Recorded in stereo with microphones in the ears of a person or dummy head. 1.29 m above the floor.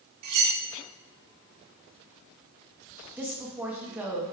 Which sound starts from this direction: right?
Cutlery clinking, at 0.2 s.